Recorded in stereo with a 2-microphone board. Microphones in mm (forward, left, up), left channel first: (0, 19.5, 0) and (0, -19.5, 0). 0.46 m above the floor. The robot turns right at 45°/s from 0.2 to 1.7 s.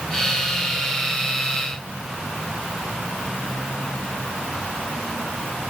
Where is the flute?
No flute in this recording.